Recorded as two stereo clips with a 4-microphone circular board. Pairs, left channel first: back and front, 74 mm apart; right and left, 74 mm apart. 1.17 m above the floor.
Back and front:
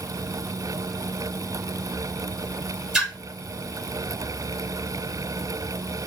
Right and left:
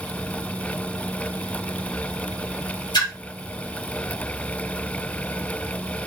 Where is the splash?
80° right, 1.3 m.